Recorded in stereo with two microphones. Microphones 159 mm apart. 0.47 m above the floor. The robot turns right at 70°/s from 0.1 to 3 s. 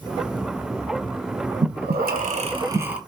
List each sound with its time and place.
1.6 s breathing: 100° right, 0.5 m; by 3.0 s 5° right, 0.5 m